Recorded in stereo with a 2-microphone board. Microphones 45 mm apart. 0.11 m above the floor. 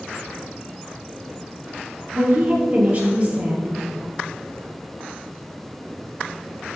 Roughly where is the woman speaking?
Right.